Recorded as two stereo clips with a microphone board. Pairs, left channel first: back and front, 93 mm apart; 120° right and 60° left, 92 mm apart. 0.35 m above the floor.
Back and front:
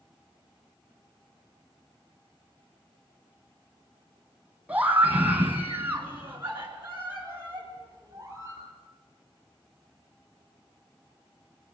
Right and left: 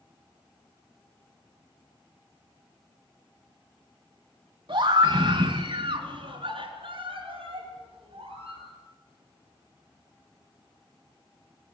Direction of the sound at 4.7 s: 75° left.